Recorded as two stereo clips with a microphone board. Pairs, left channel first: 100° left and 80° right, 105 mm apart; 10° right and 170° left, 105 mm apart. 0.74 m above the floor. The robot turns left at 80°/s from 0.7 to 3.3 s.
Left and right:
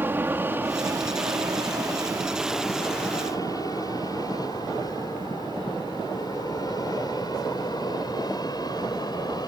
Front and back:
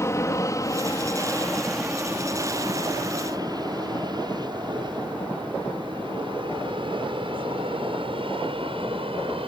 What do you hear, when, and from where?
0.0 s an aircraft: 30° right; by 9.5 s 145° left